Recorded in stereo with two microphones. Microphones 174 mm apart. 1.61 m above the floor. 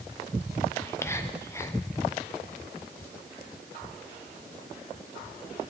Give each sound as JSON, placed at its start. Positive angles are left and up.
{"t": 0.8, "sound": "whispering", "side_deg": 15, "distance_m": 0.8}